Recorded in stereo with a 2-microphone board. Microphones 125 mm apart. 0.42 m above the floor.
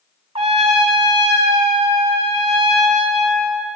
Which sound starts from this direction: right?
A trumpet, at 0.3 s.